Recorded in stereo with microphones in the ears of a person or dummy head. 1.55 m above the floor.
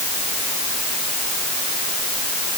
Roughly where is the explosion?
I don't hear an explosion.